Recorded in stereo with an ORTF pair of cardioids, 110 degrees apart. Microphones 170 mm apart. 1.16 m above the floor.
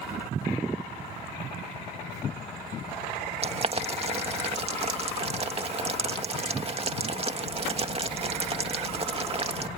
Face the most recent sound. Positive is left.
turn(degrees=-35)